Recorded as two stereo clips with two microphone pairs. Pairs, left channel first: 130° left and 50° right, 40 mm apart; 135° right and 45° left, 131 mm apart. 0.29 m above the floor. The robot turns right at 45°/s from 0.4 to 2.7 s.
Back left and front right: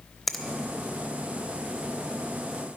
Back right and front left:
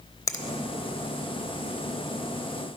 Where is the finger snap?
155° right, 0.7 m; by 0.4 s 150° right, 0.7 m.